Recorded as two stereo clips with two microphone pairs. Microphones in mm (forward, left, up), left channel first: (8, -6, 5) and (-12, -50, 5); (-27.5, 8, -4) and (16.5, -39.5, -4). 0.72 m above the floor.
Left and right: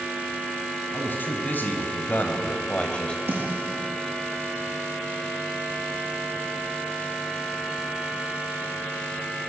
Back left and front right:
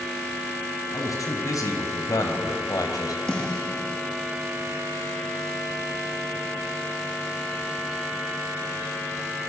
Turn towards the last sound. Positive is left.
turn(degrees=-150)